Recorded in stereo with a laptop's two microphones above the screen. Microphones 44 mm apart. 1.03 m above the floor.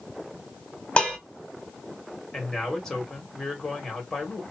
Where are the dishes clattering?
25° left (ahead or behind), 1.4 m.